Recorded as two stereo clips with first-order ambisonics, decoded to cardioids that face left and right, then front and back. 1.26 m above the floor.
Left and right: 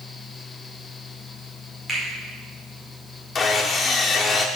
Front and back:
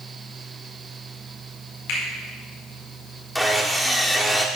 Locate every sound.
1.9 s a finger snap: 10° right, 4 m
3.4 s sawing: 80° left, 0.9 m